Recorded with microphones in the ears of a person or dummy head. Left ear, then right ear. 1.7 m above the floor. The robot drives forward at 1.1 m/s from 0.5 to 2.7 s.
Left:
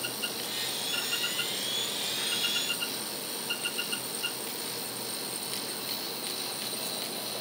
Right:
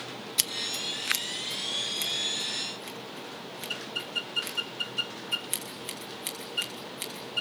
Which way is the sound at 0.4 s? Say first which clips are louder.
Right 3 dB; 80° right.